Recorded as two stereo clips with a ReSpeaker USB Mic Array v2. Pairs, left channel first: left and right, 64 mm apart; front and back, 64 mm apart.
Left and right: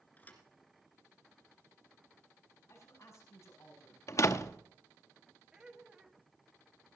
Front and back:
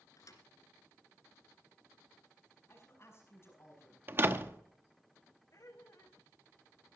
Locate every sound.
0.2 s a thud: 30° left, 2.0 m
2.7 s a man speaking: 50° left, 6 m
4.1 s a door slam: 130° left, 0.7 m
5.5 s laughter: 15° right, 1.7 m